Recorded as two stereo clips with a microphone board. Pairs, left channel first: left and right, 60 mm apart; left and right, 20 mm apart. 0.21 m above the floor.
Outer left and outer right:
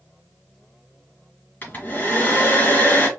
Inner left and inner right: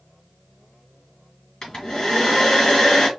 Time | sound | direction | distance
1.6 | a hair dryer | 30° left (ahead or behind) | 1.8 m